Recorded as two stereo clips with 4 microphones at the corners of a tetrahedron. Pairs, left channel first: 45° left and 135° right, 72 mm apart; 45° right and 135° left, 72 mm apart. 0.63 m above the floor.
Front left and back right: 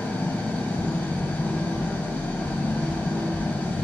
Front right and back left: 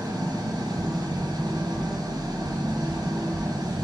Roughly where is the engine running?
Behind left.